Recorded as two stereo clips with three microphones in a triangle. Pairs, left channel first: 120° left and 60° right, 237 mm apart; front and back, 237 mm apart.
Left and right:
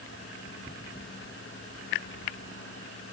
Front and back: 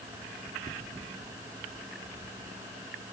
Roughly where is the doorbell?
No doorbell in this recording.